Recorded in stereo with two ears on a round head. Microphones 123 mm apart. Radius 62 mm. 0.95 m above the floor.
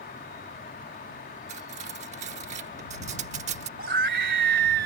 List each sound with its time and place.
0.0 s an insect: 65° left (ahead or behind)
1.5 s cutlery clinking: 50° right (ahead or behind)
3.8 s a scream: 85° right